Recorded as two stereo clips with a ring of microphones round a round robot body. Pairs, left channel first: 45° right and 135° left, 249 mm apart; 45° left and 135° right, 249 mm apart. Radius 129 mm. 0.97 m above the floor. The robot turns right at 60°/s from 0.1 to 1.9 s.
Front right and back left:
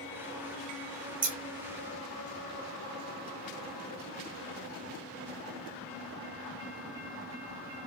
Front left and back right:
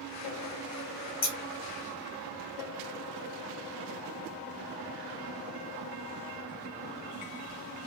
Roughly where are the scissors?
Left.